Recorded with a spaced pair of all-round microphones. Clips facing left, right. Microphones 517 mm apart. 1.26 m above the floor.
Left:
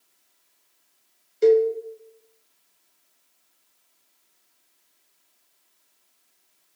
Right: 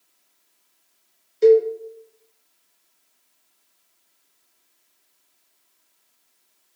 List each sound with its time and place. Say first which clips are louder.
1.4 s a cowbell: right 3 dB; centre (ahead or behind), 0.7 m